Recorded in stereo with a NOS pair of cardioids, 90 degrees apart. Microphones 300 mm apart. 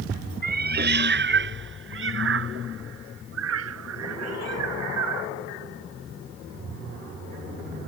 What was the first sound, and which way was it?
A cat meowing, 30° right.